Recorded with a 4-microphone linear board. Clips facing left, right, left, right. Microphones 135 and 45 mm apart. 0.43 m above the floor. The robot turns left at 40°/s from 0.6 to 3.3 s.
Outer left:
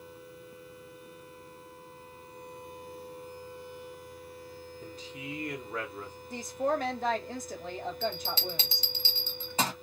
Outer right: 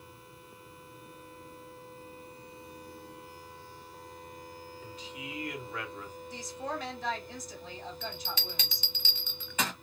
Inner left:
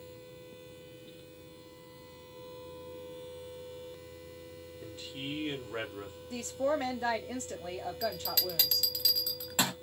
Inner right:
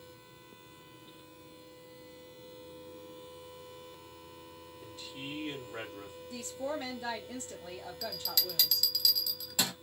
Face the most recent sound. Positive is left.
turn(degrees=30)  # may be behind; listen again after turning